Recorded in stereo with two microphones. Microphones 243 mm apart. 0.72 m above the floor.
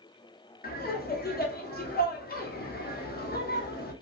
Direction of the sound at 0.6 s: 40° left (ahead or behind).